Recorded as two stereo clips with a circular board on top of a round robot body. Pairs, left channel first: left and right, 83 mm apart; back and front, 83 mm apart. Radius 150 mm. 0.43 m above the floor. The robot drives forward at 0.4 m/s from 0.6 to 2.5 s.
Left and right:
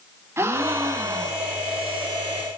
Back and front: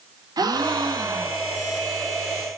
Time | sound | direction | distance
0.4 | a gasp | 30° right | 0.9 m